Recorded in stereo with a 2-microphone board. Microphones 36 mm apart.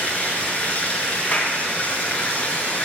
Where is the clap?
55° left (ahead or behind), 4.5 m.